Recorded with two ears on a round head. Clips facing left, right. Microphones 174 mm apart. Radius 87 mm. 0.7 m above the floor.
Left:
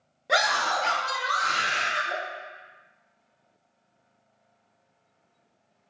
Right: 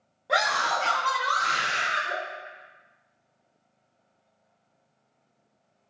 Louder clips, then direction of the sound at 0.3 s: Left 1 dB; 25° left (ahead or behind).